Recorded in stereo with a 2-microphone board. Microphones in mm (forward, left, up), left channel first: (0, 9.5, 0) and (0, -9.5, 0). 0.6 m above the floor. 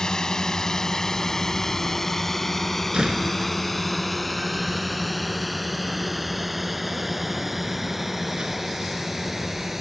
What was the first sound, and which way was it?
A drone, 40° left (ahead or behind).